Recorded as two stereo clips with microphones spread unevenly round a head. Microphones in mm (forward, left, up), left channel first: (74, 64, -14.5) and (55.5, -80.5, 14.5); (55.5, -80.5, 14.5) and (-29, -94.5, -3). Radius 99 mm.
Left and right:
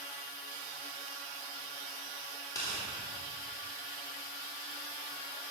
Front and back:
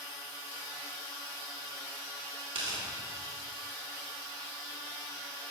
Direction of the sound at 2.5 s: 160° left.